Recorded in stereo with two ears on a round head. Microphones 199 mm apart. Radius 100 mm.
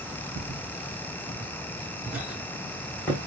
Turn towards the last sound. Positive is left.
turn(degrees=10)  # may be behind; listen again after turning